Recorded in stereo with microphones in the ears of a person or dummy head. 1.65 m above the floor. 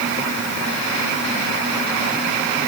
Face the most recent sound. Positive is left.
No sound to turn to.